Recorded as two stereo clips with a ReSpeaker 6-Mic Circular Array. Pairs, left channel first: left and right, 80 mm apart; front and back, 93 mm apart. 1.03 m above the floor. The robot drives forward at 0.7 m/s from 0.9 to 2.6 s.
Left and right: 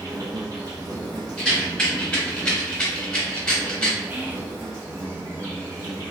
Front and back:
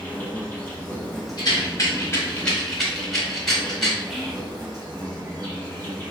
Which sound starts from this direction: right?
Whispering, at 4.1 s.